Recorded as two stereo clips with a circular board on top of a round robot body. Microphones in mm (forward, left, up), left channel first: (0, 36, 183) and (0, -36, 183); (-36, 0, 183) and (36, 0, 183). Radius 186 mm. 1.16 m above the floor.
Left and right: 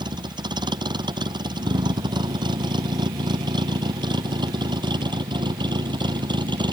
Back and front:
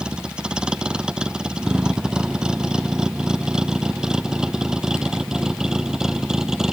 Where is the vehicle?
75° right; by 6.7 s 80° right.